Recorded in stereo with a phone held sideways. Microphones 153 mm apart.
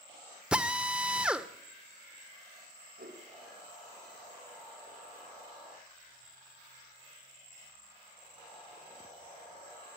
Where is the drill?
5° right (ahead or behind), 1.0 m.